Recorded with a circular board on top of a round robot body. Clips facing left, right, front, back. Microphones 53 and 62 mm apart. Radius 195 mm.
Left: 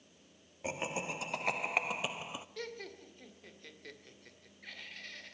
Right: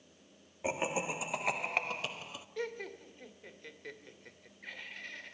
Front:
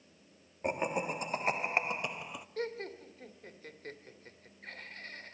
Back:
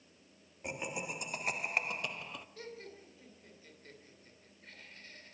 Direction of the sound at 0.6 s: 25° right.